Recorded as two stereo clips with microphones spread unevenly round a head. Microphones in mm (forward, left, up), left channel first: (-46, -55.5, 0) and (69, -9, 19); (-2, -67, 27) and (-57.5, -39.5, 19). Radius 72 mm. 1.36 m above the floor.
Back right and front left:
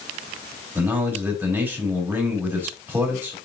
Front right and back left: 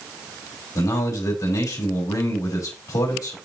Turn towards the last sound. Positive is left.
turn(degrees=-55)